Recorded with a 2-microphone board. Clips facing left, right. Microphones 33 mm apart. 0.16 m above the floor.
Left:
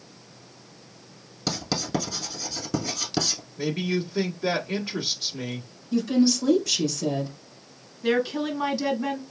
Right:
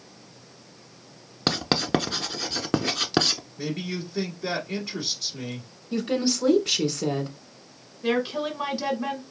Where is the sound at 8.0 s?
20° right (ahead or behind), 1.5 m.